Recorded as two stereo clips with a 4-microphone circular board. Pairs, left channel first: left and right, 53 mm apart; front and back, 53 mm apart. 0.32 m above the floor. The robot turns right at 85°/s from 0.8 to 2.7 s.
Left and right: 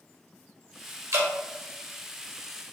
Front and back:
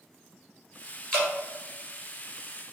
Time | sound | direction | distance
1.1 | dripping | 75° right | 1.7 m